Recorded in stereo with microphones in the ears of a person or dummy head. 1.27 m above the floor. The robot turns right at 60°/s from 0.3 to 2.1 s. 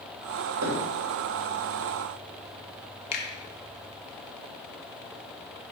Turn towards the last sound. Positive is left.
turn(degrees=45)  # may be behind; listen again after turning